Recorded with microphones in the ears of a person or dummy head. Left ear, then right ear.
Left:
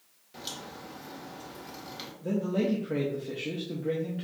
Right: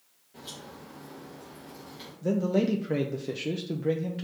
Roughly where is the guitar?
I don't hear a guitar.